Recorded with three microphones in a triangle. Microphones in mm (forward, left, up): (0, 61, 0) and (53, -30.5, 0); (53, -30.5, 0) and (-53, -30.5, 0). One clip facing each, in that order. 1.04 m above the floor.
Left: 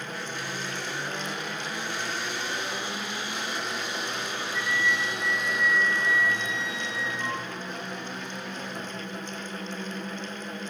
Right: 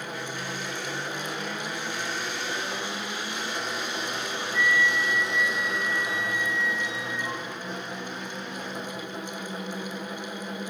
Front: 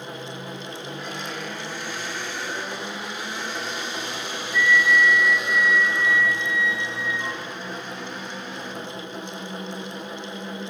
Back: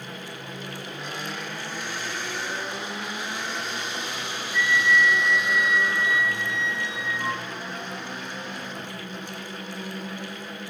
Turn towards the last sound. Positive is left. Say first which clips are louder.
# right 4 dB, front 3 dB
turn(degrees=115)